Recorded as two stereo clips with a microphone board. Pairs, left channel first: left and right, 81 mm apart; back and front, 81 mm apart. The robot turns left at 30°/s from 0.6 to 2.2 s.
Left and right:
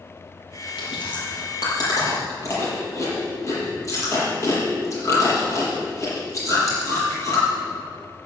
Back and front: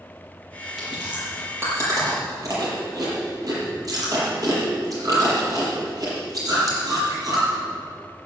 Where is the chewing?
85° left, 7 m; by 7.5 s 45° left, 7 m.